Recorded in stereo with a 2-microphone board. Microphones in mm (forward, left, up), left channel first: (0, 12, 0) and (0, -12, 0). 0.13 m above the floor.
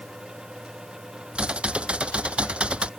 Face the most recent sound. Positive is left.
turn(degrees=-55)  # may be behind; listen again after turning